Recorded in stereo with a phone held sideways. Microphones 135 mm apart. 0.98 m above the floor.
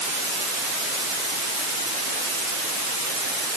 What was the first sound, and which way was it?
Only background noise.